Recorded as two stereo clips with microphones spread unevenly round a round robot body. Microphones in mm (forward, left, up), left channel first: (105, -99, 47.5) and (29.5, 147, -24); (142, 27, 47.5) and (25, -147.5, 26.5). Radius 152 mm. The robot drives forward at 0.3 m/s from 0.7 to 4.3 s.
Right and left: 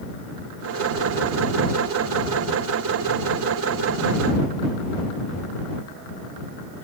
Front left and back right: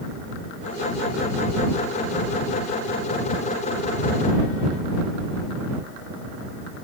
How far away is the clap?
No clap in this recording.